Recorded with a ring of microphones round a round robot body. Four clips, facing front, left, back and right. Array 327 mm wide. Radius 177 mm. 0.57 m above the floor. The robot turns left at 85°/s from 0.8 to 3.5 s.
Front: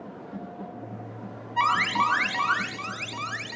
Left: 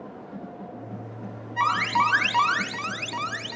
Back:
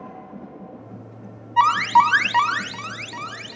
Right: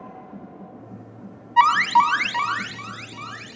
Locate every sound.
1.6 s an alarm: 125° right, 2.5 m; by 3.6 s 70° left, 2.5 m